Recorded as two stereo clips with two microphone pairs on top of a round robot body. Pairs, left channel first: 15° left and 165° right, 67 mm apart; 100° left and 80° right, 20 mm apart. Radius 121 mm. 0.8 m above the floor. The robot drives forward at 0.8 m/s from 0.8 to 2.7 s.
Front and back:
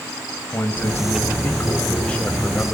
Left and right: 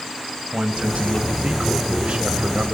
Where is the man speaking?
50° right, 5.5 m; by 2.7 s 65° right, 4.5 m.